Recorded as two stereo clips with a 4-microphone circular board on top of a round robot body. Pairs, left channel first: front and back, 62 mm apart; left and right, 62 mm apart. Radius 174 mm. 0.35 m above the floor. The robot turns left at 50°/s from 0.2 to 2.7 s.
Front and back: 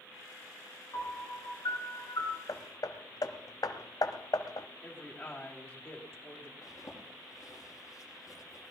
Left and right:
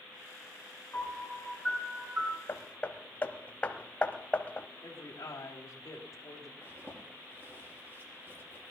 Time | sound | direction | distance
0.9 | a piano | 30° left | 8 m
2.5 | hammering | 30° left | 1.1 m
4.8 | a man speaking | 55° left | 3 m
6.6 | a zipper | 40° right | 6 m